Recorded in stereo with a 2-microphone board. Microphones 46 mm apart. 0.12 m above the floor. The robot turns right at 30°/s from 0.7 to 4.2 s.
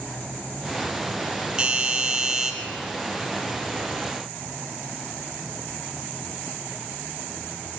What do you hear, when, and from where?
1.6 s a doorbell: 20° right (ahead or behind), 1.8 m; by 2.5 s 15° right (ahead or behind), 1.8 m